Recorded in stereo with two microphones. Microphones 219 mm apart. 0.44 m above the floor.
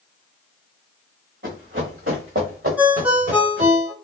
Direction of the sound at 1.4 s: 60° right (ahead or behind).